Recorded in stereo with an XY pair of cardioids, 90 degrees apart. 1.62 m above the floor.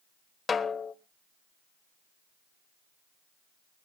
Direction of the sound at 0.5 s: 45° left.